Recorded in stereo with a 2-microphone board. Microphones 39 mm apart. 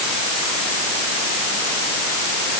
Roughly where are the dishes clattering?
I don't hear dishes clattering.